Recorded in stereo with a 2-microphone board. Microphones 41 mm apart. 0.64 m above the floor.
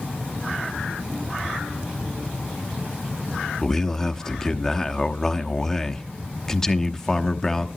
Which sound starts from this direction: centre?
A man speaking, at 3.6 s.